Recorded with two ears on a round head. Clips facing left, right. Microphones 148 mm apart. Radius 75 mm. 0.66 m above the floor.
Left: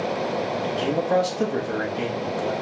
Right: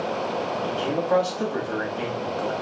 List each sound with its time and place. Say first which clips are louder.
0.6 s a man speaking: left 1 dB; 20° left (ahead or behind), 1.0 m